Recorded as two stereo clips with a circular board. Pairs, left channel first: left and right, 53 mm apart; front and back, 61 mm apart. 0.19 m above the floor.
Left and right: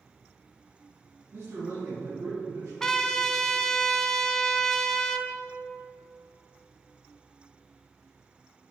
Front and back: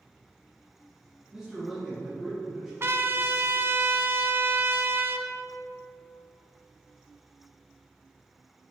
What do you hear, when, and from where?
1.3 s a man speaking: 105° right, 2 m; by 2.7 s 90° right, 3.5 m
2.8 s a trumpet: 165° left, 0.6 m